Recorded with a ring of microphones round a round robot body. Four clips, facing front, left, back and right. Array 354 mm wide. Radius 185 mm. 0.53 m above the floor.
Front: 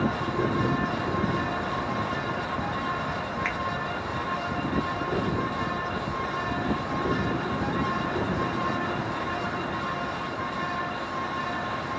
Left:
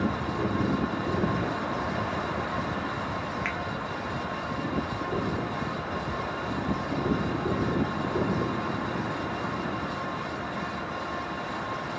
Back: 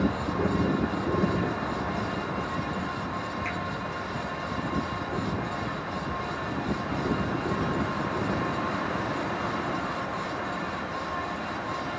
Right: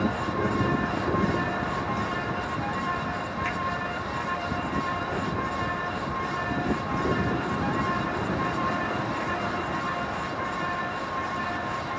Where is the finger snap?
35° left, 0.9 m.